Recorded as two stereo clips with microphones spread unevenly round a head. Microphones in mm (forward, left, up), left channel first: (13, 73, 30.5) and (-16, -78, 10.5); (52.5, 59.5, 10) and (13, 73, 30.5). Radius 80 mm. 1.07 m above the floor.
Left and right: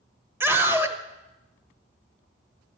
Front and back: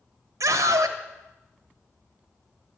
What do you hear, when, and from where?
0.4 s a scream: 175° right, 1.3 m